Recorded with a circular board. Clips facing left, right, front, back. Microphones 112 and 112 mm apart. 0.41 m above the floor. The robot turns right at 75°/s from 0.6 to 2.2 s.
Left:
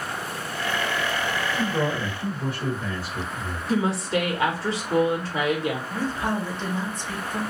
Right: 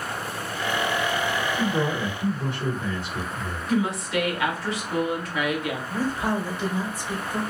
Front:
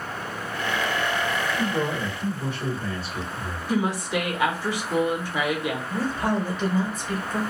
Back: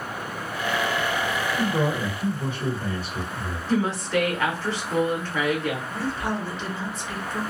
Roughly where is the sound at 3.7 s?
Ahead left.